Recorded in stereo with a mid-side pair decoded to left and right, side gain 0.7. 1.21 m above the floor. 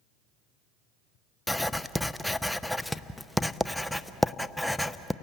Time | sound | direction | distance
1.5 | writing | 5° left | 0.6 m